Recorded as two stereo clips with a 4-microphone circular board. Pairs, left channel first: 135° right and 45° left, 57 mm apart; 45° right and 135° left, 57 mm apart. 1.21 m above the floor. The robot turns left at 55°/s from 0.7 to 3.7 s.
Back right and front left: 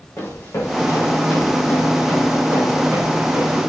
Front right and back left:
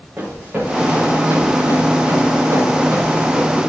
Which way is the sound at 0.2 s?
165° right.